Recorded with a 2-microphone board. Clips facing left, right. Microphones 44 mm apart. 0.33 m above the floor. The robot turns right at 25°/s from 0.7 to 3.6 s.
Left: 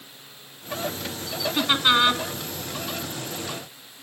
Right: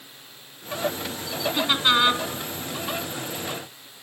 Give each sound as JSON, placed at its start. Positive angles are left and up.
{"t": 1.6, "sound": "laughter", "side_deg": 15, "distance_m": 2.5}